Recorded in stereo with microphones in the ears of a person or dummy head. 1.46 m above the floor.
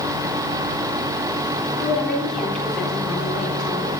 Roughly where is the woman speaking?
Centre.